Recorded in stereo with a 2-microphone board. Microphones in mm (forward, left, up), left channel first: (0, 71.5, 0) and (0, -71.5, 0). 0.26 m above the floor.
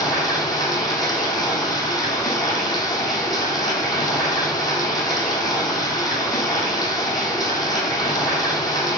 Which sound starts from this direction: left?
Running water, at 0.0 s.